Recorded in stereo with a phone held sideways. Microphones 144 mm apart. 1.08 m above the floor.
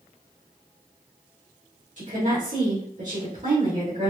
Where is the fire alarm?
I don't hear a fire alarm.